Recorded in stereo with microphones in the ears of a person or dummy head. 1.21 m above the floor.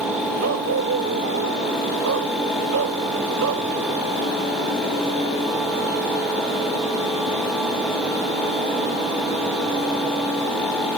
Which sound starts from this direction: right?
A dog barking, at 0.4 s.